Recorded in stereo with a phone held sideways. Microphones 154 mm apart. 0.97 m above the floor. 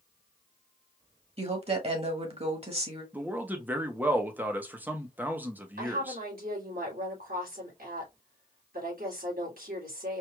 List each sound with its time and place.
1.4 s a woman speaking: 45° right (ahead or behind), 1.4 m
3.1 s a man speaking: 10° right (ahead or behind), 0.9 m
5.8 s a woman speaking: 75° right (ahead or behind), 3 m